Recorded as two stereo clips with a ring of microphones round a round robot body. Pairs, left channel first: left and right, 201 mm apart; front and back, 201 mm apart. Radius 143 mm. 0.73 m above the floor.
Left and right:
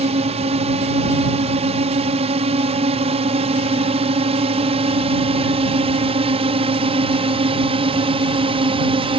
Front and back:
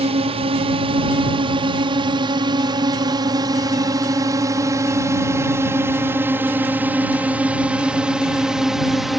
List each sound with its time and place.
0.0 s a drone: 135° right; by 9.2 s 90° right